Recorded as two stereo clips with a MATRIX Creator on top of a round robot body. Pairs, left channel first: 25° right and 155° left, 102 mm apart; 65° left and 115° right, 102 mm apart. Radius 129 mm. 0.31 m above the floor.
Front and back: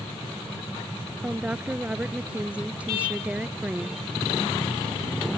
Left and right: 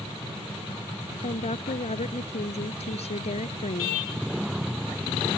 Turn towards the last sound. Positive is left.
turn(degrees=80)